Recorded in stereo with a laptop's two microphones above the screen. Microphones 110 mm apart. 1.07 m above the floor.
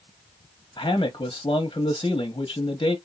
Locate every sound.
0.8 s a man speaking: 40° left (ahead or behind), 0.9 m